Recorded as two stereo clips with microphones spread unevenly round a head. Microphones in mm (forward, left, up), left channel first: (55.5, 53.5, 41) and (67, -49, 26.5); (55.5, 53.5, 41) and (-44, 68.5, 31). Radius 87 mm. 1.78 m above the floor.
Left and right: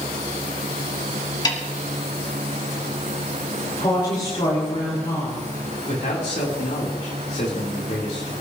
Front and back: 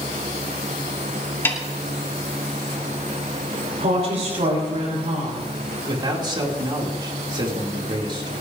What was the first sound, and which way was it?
A snare drum, 55° left.